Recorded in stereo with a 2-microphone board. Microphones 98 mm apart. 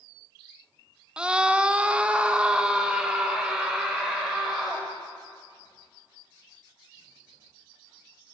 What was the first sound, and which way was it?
A scream, 10° right (ahead or behind).